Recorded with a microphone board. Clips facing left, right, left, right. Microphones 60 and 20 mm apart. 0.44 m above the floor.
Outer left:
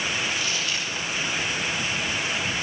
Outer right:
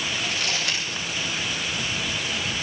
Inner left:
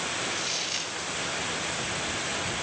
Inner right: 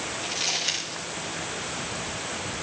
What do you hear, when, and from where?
0.2 s crumpling: 75° right (ahead or behind), 9 m